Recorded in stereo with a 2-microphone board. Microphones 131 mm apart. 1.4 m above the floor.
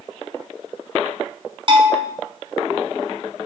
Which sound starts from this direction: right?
A bell, at 1.7 s.